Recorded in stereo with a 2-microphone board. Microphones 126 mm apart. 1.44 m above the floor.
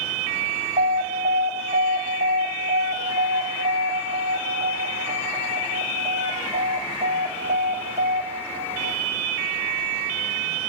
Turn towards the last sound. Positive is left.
turn(degrees=-80)